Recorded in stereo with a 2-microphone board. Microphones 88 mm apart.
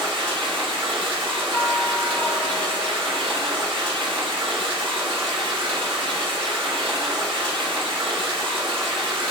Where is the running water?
75° right (ahead or behind), 1.1 m.